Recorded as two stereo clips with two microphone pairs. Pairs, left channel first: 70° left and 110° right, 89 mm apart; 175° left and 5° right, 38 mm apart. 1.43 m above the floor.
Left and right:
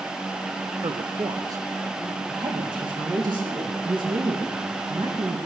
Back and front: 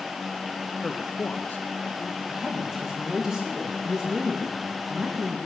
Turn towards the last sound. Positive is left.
turn(degrees=-75)